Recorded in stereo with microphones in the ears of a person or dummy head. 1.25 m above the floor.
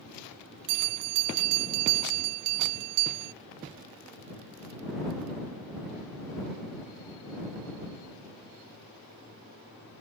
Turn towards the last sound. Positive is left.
turn(degrees=-70)  # may be behind; listen again after turning